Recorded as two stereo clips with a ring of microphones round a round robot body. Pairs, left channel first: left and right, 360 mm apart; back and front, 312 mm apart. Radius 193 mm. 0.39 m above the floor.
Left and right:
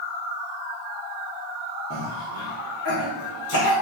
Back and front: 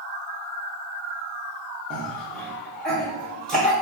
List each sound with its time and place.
1.9 s a cough: 95° left, 1.0 m